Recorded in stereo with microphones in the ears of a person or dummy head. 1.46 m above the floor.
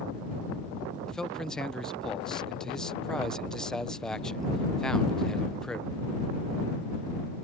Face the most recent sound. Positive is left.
turn(degrees=5)  # may be behind; listen again after turning